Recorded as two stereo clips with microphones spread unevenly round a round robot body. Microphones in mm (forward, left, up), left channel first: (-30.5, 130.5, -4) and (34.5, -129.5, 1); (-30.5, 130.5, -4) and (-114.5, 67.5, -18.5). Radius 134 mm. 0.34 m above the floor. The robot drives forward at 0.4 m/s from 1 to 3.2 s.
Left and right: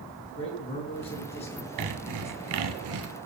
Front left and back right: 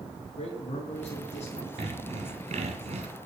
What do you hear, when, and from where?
0.4 s a man speaking: 35° left, 4 m; by 1.7 s 40° left, 4 m
1.8 s sawing: 90° right, 1.2 m; by 3.1 s 115° right, 1.3 m